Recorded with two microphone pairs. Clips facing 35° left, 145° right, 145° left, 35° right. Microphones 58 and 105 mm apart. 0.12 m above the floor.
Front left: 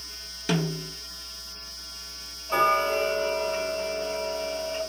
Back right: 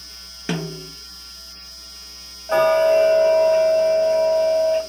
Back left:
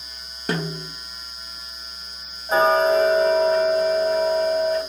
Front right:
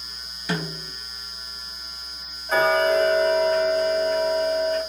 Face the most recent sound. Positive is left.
turn(degrees=-140)